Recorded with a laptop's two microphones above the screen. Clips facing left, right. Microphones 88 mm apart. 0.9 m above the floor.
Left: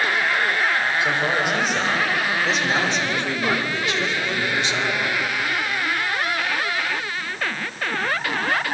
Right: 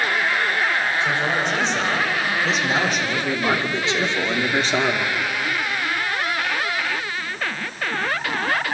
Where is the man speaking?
10° left (ahead or behind), 4.5 m; by 5.1 s 55° right (ahead or behind), 2.5 m.